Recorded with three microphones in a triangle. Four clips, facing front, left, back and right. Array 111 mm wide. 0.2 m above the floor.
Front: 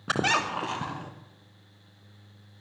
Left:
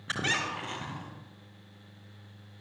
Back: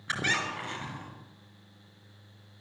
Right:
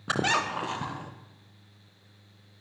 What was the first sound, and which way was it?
A squeak, 35° right.